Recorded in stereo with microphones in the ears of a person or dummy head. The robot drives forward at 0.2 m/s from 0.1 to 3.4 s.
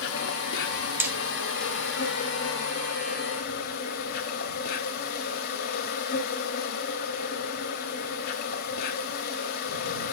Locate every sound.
0.0 s an insect: 65° left (ahead or behind), 1.1 m; by 10.1 s 50° left (ahead or behind), 1.2 m
1.0 s hammering: 5° right (ahead or behind), 0.7 m